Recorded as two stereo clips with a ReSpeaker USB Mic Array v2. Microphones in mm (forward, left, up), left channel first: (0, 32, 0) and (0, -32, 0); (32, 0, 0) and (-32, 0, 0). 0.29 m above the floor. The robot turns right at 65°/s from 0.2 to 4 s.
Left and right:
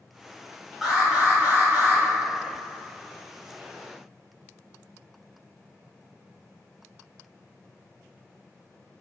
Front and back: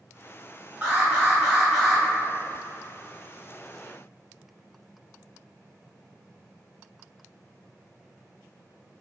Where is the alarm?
165° right, 1.1 m; by 2.0 s 85° right, 1.1 m.